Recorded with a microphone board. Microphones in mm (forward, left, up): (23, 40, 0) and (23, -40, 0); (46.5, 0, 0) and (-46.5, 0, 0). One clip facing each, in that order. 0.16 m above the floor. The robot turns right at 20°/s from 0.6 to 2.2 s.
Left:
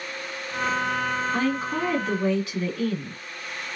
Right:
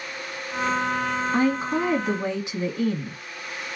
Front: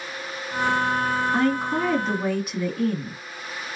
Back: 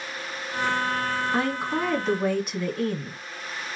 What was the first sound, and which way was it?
A woman speaking, 105° right.